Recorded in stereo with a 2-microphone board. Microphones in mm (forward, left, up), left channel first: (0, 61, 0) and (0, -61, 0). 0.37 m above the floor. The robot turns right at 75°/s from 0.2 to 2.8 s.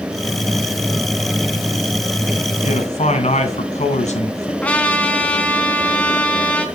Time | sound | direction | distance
2.6 | a man speaking | 70° left (ahead or behind) | 3 m
4.6 | a trumpet | 10° left (ahead or behind) | 2.5 m